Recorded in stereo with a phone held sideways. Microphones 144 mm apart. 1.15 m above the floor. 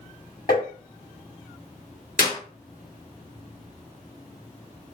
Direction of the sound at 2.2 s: 80° left.